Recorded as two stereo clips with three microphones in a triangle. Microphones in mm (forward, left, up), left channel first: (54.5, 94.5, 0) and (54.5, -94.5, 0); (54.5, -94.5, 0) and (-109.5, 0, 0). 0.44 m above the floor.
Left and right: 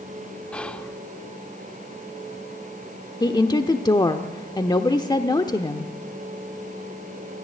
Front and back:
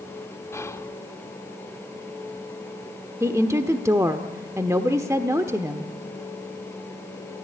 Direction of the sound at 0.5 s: 15° left.